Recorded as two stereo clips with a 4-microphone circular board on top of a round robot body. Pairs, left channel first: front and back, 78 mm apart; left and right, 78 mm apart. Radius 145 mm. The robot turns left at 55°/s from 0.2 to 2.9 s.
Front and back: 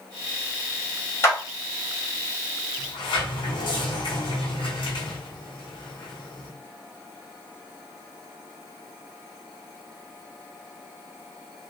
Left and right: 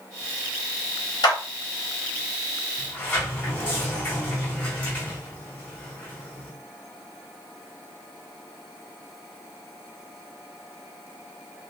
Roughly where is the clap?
Ahead left.